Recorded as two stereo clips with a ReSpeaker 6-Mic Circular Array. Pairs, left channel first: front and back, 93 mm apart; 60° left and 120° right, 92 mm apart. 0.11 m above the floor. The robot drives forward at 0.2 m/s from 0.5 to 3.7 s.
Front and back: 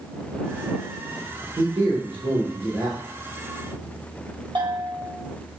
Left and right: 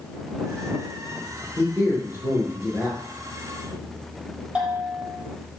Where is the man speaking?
Straight behind, 2.5 m.